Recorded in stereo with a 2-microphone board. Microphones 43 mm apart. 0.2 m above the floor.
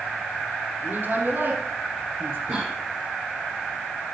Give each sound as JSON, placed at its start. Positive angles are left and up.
{"t": 0.8, "sound": "a woman speaking", "side_deg": -50, "distance_m": 5.5}
{"t": 2.5, "sound": "a cough", "side_deg": -60, "distance_m": 4.5}